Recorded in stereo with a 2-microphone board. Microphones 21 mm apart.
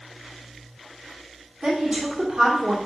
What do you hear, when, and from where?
1.6 s a woman speaking: 50° right (ahead or behind), 2.5 m